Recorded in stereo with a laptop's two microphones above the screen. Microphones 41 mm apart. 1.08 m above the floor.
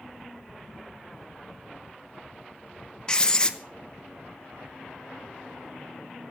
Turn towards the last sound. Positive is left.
turn(degrees=20)  # may be behind; listen again after turning